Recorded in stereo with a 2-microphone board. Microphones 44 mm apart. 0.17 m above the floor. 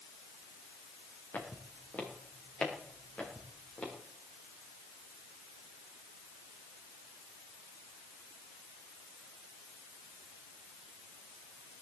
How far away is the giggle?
No giggle in this recording.